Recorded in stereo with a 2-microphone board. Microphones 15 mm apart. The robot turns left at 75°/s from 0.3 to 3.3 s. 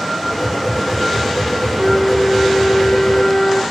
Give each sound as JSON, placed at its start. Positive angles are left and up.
{"t": 1.8, "sound": "a flute", "azimuth_deg": -145, "distance_m": 1.3}